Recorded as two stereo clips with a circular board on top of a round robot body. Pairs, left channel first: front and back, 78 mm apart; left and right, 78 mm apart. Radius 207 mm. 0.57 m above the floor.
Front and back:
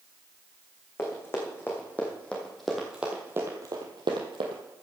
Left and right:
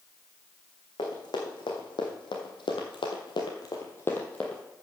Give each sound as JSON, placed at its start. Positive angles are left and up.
{"t": 1.0, "sound": "running footsteps", "azimuth_deg": 60, "distance_m": 2.5}